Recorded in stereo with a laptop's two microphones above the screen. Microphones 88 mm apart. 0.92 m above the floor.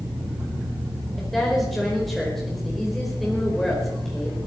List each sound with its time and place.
1.2 s a woman speaking: 5° left (ahead or behind), 5 m